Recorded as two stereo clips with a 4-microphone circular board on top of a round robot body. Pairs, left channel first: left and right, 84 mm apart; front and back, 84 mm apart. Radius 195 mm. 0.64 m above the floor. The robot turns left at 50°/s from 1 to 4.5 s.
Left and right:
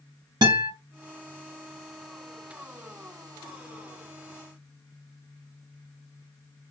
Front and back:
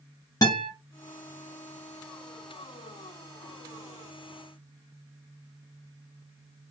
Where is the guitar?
50° right, 0.6 m.